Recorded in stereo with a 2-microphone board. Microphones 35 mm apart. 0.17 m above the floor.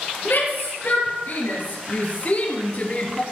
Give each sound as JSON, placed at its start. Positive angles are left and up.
{"t": 0.2, "sound": "a shout", "side_deg": 60, "distance_m": 4.0}